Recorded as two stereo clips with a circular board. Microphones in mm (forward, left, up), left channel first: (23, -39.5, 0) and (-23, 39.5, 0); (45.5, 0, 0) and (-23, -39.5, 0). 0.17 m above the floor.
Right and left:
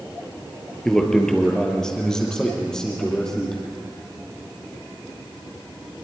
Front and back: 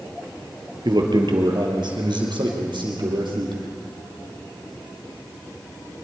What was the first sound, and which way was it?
A man speaking, 145° right.